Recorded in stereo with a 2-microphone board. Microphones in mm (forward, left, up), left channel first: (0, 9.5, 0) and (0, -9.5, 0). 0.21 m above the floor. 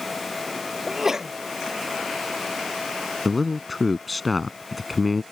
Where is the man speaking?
5° left (ahead or behind).